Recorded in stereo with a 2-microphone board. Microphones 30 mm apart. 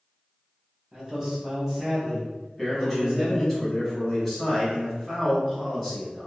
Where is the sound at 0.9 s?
25° right (ahead or behind), 1.2 m.